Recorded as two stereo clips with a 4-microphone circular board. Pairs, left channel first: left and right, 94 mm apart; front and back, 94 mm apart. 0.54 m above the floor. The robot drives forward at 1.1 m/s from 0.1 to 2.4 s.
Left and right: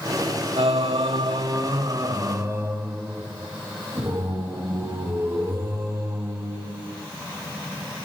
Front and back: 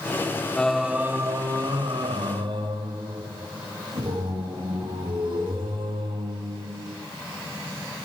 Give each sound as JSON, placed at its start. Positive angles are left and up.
{"t": 0.6, "sound": "singing", "azimuth_deg": -80, "distance_m": 0.9}